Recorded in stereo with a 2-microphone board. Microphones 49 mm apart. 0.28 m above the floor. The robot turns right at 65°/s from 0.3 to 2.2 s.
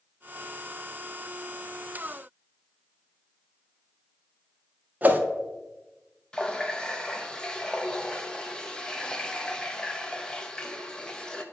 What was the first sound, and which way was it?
A whoosh, 35° right (ahead or behind).